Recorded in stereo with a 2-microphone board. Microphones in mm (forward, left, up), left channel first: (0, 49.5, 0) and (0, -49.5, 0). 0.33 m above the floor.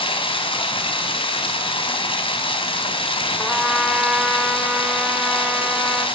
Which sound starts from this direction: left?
Running water, at 0.0 s.